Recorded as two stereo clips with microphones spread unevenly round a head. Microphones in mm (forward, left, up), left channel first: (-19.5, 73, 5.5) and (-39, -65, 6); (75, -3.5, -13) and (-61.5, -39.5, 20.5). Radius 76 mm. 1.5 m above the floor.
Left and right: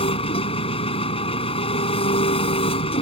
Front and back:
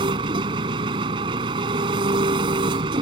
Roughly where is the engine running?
Behind left.